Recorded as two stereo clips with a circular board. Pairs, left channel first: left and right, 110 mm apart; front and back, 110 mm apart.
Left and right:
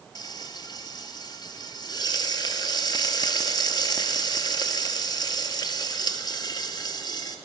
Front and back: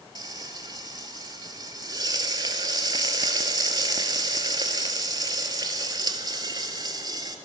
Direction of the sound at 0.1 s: 135° left.